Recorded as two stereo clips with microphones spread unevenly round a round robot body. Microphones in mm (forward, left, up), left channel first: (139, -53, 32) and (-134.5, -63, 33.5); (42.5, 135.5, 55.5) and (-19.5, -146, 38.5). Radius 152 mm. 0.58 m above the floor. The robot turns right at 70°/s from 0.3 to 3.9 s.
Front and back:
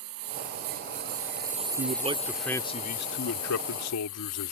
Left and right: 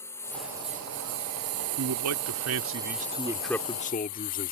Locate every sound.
0.0 s a lawn mower: 160° left; by 4.5 s 50° left
1.8 s a man speaking: 130° right; by 4.5 s 15° left